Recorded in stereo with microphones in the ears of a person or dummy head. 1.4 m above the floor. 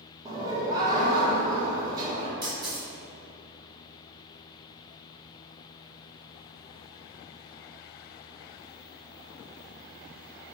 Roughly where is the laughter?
Right.